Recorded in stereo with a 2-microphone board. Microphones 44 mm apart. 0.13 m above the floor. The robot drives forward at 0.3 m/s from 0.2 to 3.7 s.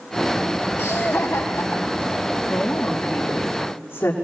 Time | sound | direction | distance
0.8 | laughter | 75° left (ahead or behind) | 3.5 m
2.5 | a woman speaking | 80° left | 6 m